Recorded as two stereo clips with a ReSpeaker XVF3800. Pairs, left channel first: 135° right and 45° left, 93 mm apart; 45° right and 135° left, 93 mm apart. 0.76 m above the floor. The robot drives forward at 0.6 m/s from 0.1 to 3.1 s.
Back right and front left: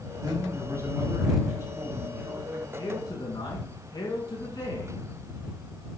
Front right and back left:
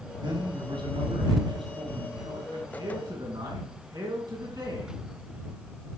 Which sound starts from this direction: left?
A man speaking, at 0.2 s.